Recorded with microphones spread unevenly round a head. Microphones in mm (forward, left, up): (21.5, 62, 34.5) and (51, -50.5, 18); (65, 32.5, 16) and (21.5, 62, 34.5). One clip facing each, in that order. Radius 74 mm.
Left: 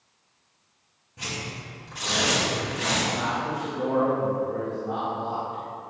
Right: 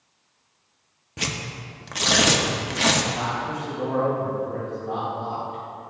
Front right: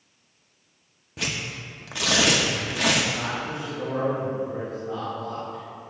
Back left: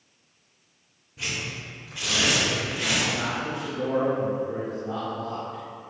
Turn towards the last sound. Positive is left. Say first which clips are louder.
# even, back left 1 dB
turn(degrees=-165)